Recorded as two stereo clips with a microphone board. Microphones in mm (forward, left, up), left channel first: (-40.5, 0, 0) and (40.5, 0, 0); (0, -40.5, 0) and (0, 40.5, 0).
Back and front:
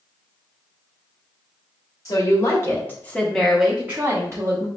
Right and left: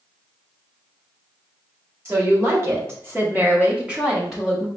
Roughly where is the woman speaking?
Behind left.